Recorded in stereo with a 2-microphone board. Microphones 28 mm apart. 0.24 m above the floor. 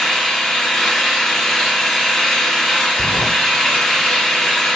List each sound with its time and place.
0.0 s an engine running: 10° left (ahead or behind), 3 m
3.0 s a sliding door: 75° left (ahead or behind), 2.0 m